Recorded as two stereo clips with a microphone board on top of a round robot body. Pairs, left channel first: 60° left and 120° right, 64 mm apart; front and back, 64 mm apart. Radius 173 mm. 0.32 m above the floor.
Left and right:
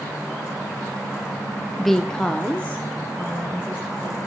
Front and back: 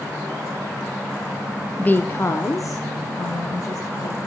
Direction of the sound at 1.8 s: 25° right.